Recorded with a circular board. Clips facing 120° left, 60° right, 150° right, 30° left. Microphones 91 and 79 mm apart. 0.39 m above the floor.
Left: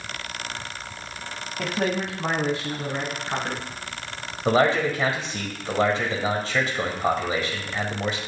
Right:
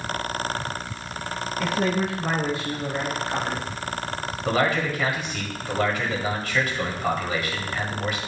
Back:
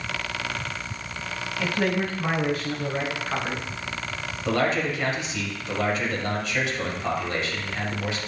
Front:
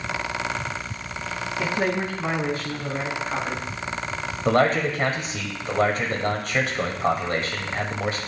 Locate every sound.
1.6 s a man speaking: 95° left, 2 m; by 3.7 s 140° left, 4 m
4.5 s a man speaking: 65° left, 1.8 m